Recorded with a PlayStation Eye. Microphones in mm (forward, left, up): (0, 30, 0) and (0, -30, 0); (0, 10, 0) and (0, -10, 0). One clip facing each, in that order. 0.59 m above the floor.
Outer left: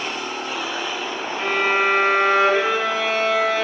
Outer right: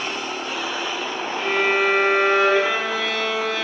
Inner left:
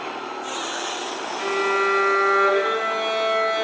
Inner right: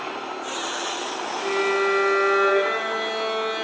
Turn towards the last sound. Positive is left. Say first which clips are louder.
# even, inner left 1 dB
turn(degrees=30)  # may be behind; listen again after turning